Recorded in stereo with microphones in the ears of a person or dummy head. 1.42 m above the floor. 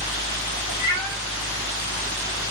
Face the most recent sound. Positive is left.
turn(degrees=-15)  # may be behind; listen again after turning